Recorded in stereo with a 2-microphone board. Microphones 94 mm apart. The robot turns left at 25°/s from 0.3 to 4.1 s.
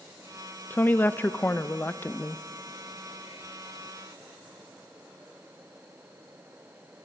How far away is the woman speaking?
About 0.5 m.